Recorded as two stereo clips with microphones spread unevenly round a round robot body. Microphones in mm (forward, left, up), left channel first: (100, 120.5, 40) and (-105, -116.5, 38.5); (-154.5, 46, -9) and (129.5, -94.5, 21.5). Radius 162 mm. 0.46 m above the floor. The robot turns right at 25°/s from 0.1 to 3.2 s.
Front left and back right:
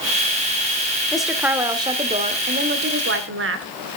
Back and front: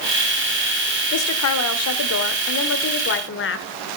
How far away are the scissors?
I don't hear scissors.